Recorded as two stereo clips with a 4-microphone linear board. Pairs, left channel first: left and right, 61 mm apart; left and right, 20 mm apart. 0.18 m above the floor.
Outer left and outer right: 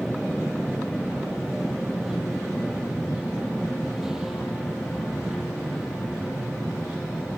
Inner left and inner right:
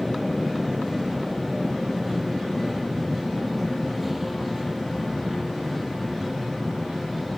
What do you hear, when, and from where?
0.0 s an aircraft: 5° right (ahead or behind)